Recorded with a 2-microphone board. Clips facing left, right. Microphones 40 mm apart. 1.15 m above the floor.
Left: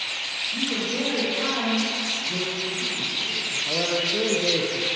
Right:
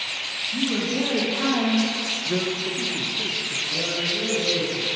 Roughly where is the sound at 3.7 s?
Left.